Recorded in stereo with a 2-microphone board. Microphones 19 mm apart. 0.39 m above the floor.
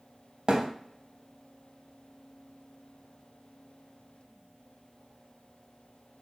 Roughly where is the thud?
Right.